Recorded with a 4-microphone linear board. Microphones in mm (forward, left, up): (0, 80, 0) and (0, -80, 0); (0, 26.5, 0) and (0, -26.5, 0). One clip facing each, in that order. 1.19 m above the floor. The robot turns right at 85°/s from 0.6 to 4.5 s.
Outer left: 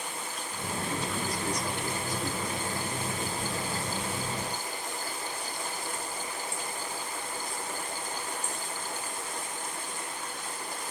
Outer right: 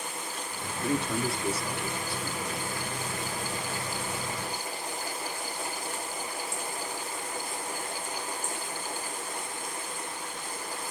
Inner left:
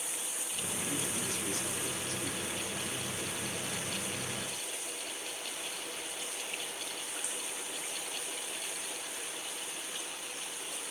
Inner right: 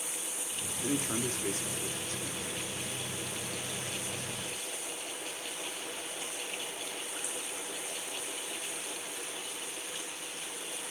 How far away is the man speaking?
About 1.9 m.